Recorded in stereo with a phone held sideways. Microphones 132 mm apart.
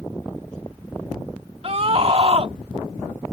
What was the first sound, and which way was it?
A scream, 45° right (ahead or behind).